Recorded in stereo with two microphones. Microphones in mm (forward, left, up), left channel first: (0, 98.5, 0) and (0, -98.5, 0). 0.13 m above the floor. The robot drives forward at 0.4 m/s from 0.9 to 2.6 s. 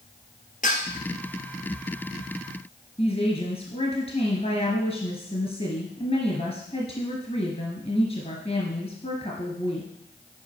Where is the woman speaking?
30° left (ahead or behind), 1.8 m.